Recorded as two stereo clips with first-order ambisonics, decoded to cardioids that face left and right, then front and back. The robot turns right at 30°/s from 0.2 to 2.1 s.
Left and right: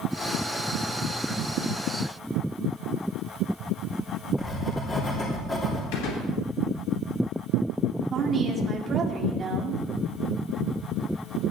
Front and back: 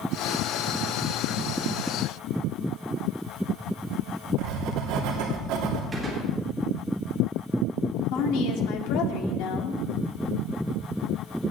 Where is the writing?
160° left, 2.5 m.